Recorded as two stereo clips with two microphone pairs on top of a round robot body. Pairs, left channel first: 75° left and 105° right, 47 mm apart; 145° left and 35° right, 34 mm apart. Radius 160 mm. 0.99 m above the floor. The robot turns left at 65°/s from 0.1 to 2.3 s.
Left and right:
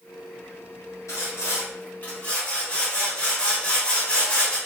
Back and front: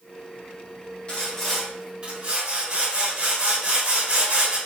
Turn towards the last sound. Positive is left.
turn(degrees=10)